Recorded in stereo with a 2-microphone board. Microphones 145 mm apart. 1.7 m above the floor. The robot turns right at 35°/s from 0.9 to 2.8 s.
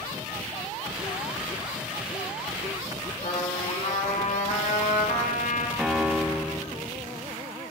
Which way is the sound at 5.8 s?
5° right (ahead or behind).